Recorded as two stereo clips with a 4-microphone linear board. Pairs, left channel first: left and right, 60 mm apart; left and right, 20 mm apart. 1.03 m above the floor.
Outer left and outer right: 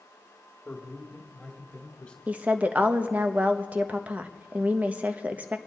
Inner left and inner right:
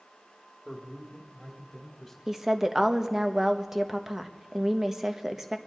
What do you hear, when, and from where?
0.7 s a man speaking: 20° left (ahead or behind), 2 m; by 2.2 s 15° left (ahead or behind), 3 m
2.3 s a woman speaking: 25° right (ahead or behind), 1.0 m